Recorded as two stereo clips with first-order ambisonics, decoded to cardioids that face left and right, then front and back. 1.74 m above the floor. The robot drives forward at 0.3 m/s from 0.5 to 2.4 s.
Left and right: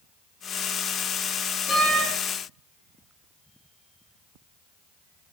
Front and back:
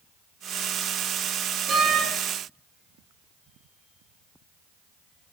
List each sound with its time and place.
1.7 s a door slam: 125° left, 1.9 m